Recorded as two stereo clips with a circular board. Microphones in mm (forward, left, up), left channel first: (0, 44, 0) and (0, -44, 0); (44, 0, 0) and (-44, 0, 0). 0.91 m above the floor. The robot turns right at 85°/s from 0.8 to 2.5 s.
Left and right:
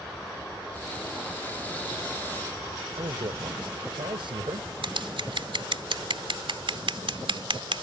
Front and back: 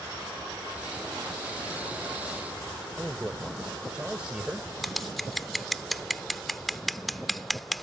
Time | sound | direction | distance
3.0 | a man speaking | 100° right | ?
4.8 | scissors | 90° right | ?